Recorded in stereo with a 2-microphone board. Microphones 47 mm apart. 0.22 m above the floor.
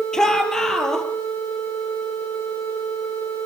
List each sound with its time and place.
0.1 s a shout: 15° left (ahead or behind), 4.5 m